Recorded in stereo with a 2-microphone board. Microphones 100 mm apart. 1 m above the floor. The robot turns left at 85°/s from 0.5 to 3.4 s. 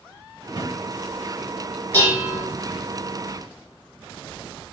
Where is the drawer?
55° right (ahead or behind), 1.8 m; by 0.8 s 35° right (ahead or behind), 1.8 m.